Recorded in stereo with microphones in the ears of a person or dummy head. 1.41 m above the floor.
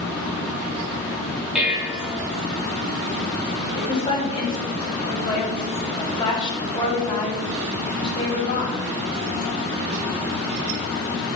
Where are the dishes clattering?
10° right (ahead or behind), 1.6 m.